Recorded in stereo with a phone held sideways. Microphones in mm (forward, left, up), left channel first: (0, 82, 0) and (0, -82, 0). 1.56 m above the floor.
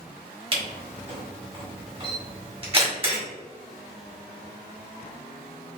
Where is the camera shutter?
35° right (ahead or behind), 1.5 m.